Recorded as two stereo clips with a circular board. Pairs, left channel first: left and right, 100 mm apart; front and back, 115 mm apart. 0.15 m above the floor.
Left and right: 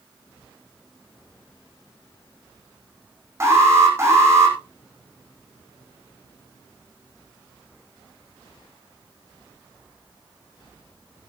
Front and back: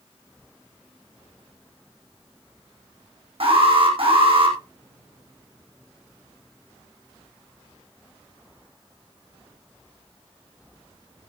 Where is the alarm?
150° right, 5.5 m.